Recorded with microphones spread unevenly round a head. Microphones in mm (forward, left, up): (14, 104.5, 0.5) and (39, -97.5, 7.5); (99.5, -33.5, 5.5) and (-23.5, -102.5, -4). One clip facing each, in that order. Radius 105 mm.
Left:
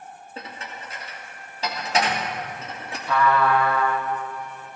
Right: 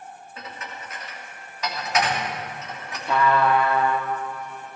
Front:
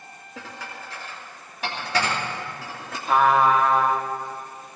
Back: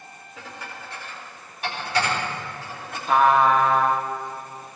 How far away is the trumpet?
About 1.2 m.